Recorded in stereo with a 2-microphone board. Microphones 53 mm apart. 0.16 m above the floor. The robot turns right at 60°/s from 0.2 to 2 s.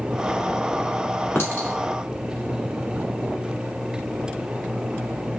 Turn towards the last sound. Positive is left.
turn(degrees=25)  # may be behind; listen again after turning